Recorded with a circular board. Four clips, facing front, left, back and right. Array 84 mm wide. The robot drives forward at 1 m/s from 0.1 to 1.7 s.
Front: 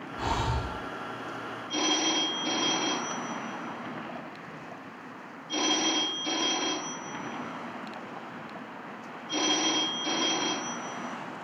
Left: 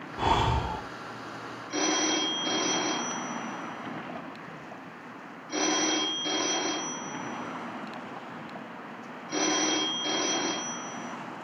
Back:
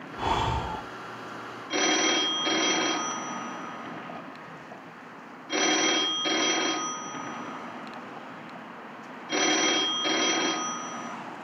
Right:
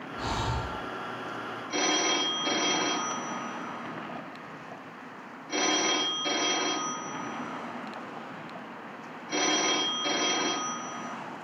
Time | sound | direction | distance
0.2 | breathing | 105° left | 1.2 m
1.7 | a phone ringing | 175° right | 6 m